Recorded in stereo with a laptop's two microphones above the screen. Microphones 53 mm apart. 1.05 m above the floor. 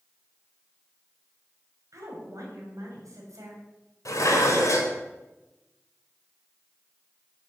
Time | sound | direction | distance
1.9 | a woman speaking | 80° right | 5 m
4.0 | dishes clattering | 70° left (ahead or behind) | 2.5 m